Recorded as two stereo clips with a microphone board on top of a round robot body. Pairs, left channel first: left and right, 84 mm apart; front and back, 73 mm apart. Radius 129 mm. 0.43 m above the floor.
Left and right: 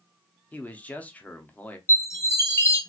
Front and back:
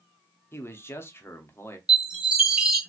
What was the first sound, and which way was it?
A man speaking, 30° left.